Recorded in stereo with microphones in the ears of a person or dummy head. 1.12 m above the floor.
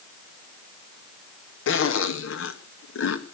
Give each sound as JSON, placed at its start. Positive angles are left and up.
{"t": 1.7, "sound": "a zipper", "side_deg": 65, "distance_m": 1.7}